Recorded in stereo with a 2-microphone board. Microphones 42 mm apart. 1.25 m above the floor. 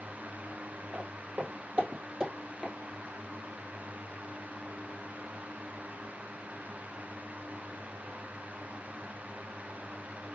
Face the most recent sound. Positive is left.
turn(degrees=-5)  # may be behind; listen again after turning